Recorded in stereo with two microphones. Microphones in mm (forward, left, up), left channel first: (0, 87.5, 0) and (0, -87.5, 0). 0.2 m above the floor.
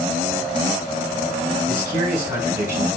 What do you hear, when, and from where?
1.7 s a man speaking: 15° right (ahead or behind), 1.9 m